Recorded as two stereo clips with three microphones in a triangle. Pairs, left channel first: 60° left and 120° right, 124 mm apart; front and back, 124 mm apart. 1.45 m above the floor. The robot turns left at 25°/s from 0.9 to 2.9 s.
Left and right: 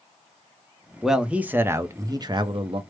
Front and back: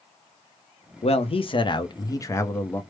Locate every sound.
1.0 s a man speaking: 30° right, 0.6 m; by 2.8 s 75° right, 0.6 m